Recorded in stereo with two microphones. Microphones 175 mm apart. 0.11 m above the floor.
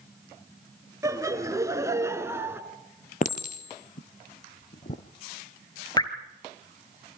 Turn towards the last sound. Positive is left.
turn(degrees=25)  # may be behind; listen again after turning